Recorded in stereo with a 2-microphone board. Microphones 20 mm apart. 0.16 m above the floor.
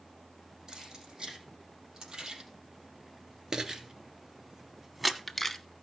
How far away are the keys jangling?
About 5.5 m.